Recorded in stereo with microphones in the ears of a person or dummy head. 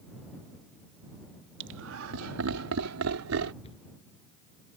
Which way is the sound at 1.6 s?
60° right (ahead or behind).